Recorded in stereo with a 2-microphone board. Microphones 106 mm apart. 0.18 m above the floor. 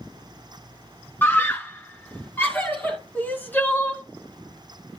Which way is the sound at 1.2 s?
20° left (ahead or behind).